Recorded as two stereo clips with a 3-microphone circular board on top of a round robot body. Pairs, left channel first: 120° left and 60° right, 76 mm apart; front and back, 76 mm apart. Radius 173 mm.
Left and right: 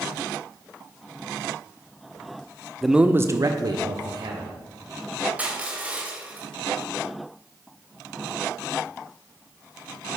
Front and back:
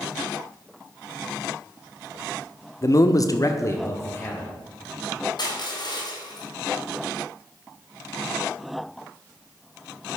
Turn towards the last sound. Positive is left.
turn(degrees=10)